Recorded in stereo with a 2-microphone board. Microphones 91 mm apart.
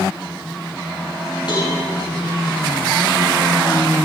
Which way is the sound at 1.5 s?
60° left (ahead or behind).